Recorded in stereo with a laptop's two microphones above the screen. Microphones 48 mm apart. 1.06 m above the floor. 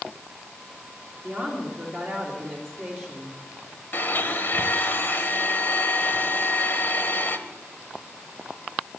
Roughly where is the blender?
Left.